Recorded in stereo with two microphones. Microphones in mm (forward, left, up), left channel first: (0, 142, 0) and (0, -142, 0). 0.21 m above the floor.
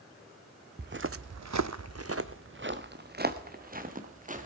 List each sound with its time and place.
0.8 s footsteps: 35° right (ahead or behind), 0.6 m; by 4.5 s 25° right (ahead or behind), 2 m